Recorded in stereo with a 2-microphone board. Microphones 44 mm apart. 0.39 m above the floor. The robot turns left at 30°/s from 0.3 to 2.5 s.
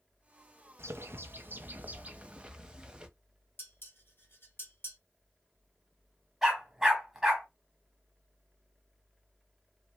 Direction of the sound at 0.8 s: 110° right.